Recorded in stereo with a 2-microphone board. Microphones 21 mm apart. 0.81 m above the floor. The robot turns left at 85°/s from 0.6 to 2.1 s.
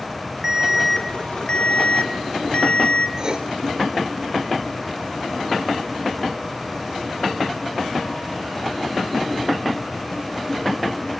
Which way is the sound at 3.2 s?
35° right (ahead or behind).